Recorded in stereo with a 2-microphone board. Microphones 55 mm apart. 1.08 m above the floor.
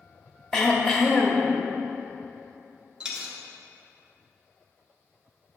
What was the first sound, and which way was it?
Throat clearing, 10° left (ahead or behind).